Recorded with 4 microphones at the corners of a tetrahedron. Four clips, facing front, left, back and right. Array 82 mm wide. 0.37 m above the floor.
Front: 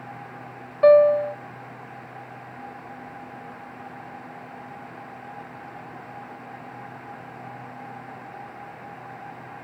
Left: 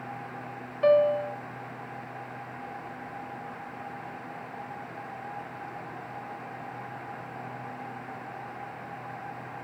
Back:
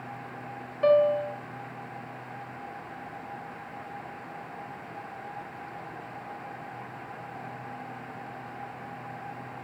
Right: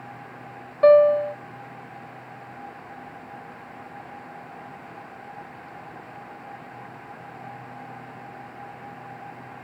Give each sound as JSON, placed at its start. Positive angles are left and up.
{"t": 0.8, "sound": "a piano", "azimuth_deg": -45, "distance_m": 1.1}